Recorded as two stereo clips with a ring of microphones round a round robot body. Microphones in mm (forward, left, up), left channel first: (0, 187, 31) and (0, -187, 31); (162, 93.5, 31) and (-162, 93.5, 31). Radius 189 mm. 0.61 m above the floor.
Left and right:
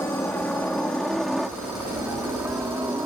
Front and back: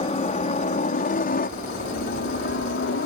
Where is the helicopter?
15° left; by 3.1 s 10° right.